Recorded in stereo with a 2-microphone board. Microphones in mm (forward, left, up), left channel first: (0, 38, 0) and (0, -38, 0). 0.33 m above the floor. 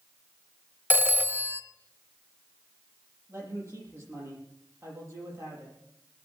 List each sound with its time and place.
0.9 s a phone ringing: 25° right (ahead or behind), 0.8 m
3.3 s a man speaking: 40° right (ahead or behind), 9 m